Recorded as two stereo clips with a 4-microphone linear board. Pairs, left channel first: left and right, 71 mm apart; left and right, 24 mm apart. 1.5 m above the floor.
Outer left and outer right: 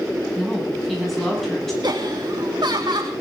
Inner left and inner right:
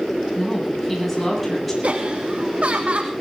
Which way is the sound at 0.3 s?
Centre (ahead or behind).